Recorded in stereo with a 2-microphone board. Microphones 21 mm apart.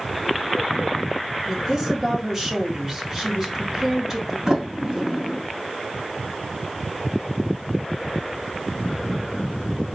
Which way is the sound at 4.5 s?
30° right (ahead or behind).